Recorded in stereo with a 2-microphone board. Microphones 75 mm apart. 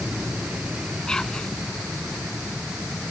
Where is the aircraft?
20° right (ahead or behind); by 3.1 s 15° right (ahead or behind).